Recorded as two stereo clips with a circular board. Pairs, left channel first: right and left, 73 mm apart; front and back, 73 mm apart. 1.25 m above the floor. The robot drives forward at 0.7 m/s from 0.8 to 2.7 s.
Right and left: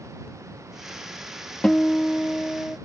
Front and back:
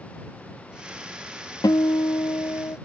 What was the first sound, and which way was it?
A guitar, 10° right.